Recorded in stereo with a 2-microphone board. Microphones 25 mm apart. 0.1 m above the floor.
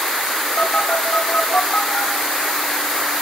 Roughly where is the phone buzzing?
Left.